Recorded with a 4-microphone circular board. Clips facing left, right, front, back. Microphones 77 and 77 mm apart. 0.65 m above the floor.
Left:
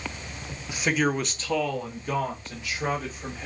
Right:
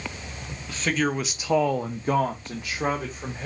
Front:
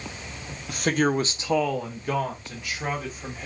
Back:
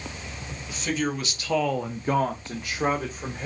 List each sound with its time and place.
0.7 s a man speaking: 15° left, 0.9 m; by 3.5 s 140° right, 1.8 m